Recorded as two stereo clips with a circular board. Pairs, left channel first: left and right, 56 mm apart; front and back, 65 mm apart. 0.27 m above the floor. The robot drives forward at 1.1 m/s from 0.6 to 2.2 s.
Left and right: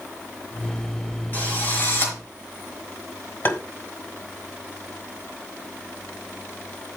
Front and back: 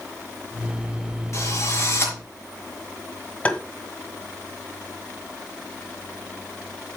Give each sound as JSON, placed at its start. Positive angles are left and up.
{"t": 1.3, "sound": "a drill", "azimuth_deg": 35, "distance_m": 4.5}
{"t": 3.5, "sound": "tapping", "azimuth_deg": 60, "distance_m": 1.6}